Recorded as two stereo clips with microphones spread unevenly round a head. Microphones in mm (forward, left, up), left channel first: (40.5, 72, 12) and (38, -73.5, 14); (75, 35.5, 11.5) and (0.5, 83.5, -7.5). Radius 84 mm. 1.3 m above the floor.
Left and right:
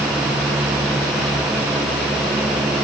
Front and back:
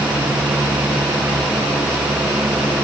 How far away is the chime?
No chime in this recording.